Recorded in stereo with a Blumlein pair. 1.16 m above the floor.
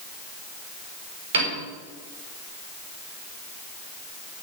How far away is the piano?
About 4.5 m.